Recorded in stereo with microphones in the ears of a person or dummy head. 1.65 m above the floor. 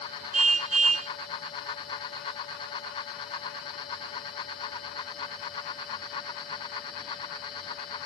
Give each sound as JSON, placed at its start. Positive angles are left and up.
{"t": 0.3, "sound": "a car horn", "side_deg": -40}